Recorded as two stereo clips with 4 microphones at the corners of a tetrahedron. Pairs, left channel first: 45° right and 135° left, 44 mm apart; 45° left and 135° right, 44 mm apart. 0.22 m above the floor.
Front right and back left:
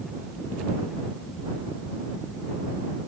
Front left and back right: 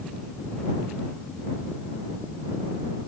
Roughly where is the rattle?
I don't hear a rattle.